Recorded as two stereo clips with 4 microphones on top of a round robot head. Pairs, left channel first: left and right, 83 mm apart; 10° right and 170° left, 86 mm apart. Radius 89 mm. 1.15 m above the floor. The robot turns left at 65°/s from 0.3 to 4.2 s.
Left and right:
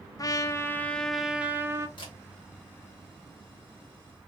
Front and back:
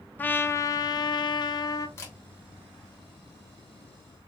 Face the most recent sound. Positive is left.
turn(degrees=-90)